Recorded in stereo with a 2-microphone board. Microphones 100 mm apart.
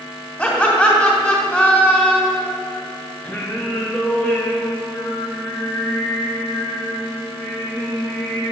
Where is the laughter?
10° left (ahead or behind), 2.5 m.